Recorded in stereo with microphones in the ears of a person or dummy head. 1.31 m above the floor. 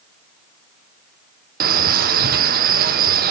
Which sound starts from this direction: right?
A man speaking, at 1.6 s.